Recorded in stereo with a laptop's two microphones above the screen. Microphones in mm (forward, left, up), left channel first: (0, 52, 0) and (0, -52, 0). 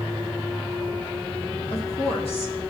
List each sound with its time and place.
1.7 s a woman speaking: 65° left (ahead or behind), 1.8 m